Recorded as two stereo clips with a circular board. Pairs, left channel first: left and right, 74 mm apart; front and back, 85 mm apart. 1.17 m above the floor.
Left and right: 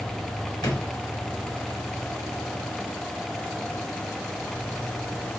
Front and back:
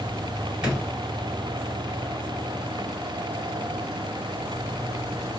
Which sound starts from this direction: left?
A drawer, at 0.6 s.